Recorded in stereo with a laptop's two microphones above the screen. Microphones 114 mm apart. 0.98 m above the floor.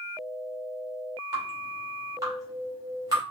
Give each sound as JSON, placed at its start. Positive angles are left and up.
{"t": 1.3, "sound": "dripping", "side_deg": -30, "distance_m": 2.5}